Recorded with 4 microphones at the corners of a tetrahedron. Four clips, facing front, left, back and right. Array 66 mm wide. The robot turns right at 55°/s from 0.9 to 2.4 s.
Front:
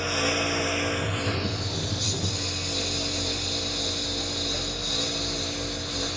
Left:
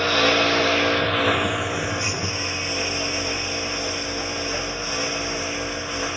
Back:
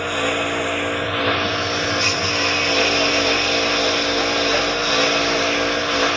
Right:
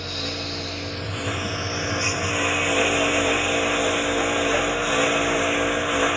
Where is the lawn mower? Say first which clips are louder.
Left 12 dB, back 5 dB; 120° left; by 6.2 s 155° right.